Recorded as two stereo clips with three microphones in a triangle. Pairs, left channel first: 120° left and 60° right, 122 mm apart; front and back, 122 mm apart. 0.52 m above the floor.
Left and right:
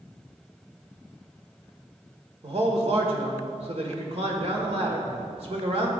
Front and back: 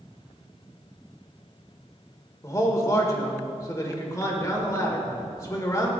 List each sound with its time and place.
2.4 s a man speaking: 60° right, 1.6 m